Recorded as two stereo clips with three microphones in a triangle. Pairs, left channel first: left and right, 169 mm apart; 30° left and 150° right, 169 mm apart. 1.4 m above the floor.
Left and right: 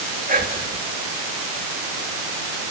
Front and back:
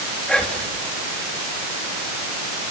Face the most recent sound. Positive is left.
turn(degrees=-55)